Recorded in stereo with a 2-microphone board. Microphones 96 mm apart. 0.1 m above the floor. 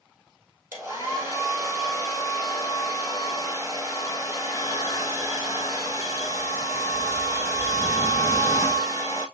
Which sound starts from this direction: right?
A hair dryer, at 0.7 s.